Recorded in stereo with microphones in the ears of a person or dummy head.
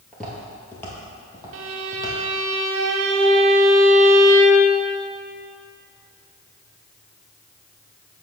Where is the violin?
70° right (ahead or behind), 0.7 m.